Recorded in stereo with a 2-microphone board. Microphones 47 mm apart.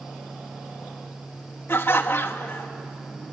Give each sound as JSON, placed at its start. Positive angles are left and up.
{"t": 1.7, "sound": "laughter", "side_deg": 55, "distance_m": 1.5}